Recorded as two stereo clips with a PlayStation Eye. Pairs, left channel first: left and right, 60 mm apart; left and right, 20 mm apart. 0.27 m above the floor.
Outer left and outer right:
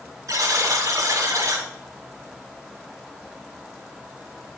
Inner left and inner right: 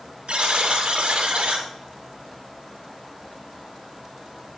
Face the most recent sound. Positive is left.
turn(degrees=-70)  # may be behind; listen again after turning